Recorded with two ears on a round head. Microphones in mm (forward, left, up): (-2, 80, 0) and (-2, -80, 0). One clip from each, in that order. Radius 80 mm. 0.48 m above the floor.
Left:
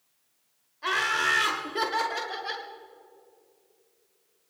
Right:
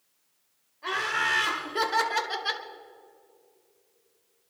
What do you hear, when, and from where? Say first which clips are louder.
0.8 s laughter: left 2 dB; 35° left (ahead or behind), 1.8 m; by 2.6 s 45° right (ahead or behind), 1.9 m